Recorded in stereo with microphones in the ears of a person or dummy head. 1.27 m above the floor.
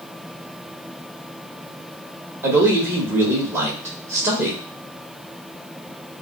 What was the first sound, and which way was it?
A man speaking, 15° right (ahead or behind).